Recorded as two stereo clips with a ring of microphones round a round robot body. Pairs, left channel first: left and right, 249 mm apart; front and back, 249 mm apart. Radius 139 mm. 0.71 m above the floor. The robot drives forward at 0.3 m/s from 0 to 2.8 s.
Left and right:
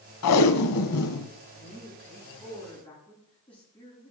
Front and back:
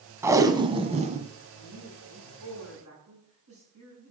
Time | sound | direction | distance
0.2 | tape being pulled | 100° left | 0.9 m
1.5 | a man speaking | 175° left | 9 m